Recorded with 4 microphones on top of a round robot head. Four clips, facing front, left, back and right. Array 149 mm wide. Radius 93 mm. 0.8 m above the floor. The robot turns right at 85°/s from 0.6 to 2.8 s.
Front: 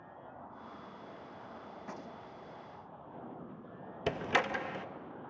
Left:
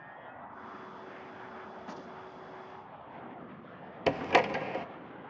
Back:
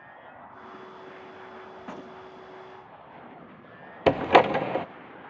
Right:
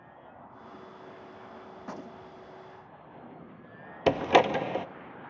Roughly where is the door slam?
Behind.